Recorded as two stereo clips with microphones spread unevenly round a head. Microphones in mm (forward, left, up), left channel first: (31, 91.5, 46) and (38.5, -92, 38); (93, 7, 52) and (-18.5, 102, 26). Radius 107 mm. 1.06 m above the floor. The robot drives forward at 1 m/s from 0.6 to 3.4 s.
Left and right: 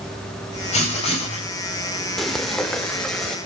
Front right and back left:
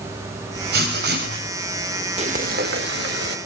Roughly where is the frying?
Behind.